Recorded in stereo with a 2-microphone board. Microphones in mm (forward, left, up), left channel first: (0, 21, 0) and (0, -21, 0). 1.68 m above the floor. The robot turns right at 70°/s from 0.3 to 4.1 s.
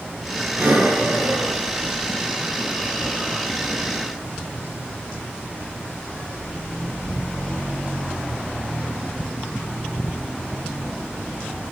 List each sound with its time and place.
0.6 s breathing: 45° right (ahead or behind), 9.5 m; by 4.1 s 65° left (ahead or behind), 9.5 m